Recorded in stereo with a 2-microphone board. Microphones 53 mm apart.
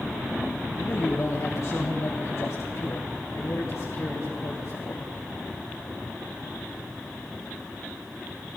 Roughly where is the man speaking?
Left.